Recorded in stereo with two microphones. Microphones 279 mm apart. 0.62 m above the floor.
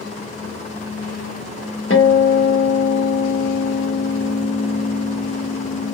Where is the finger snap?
No finger snap in this recording.